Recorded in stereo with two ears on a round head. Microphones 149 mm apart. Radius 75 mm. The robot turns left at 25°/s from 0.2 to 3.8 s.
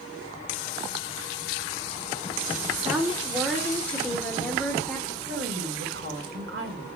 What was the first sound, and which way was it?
A woman speaking, 10° right (ahead or behind).